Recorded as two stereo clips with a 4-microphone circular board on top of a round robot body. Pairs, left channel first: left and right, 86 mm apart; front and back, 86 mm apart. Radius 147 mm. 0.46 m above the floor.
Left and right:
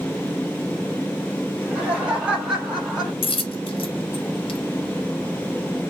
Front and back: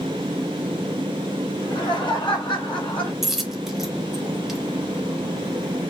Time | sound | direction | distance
1.5 | laughter | 15° right | 3 m
3.2 | a dropped coin | 95° left | 0.9 m